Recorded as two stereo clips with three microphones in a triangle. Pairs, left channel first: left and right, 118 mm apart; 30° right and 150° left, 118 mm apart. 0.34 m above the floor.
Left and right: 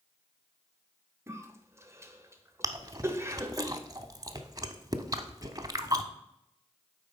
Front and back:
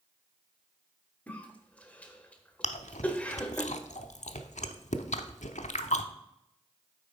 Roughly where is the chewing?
Ahead right.